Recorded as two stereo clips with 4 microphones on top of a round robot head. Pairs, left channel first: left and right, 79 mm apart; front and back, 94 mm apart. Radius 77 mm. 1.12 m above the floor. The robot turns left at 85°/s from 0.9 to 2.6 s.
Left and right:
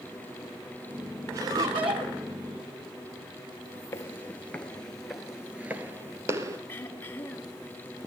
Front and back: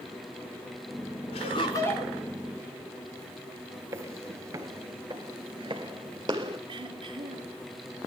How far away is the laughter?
About 4 m.